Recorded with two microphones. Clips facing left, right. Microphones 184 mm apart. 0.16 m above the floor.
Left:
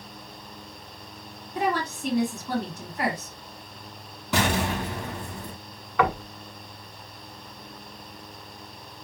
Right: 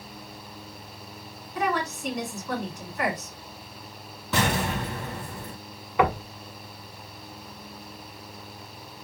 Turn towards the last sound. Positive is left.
turn(degrees=-20)  # may be behind; listen again after turning